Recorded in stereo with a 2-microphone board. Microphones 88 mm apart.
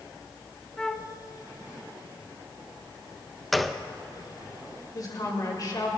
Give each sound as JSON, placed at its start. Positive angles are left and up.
{"t": 0.8, "sound": "a flute", "side_deg": 5, "distance_m": 0.7}
{"t": 3.5, "sound": "a gunshot", "side_deg": 0, "distance_m": 0.5}
{"t": 5.0, "sound": "a woman speaking", "side_deg": 45, "distance_m": 3.5}